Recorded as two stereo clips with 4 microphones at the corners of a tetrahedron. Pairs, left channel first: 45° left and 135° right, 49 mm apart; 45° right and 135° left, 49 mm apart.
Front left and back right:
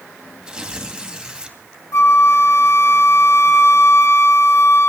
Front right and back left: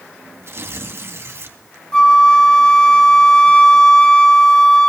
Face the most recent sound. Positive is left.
turn(degrees=25)